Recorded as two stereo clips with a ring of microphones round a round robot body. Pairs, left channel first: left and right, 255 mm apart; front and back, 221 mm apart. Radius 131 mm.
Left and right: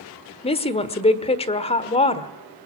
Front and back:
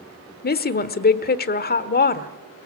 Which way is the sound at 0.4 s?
30° left.